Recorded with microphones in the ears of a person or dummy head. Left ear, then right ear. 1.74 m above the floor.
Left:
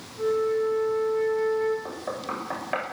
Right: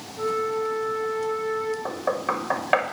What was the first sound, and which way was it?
A flute, 25° right (ahead or behind).